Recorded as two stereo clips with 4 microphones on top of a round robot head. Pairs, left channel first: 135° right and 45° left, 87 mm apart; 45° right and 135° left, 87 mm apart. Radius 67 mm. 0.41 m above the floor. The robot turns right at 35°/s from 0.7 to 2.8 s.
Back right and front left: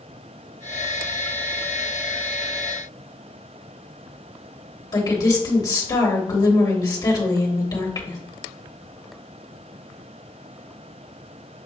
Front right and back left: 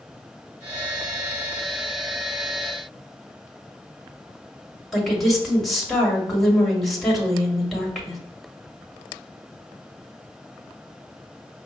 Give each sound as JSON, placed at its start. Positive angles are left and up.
{"t": 4.9, "sound": "a woman speaking", "azimuth_deg": -135, "distance_m": 2.0}